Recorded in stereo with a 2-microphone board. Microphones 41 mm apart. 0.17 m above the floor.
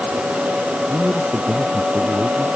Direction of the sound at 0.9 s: 5° right (ahead or behind).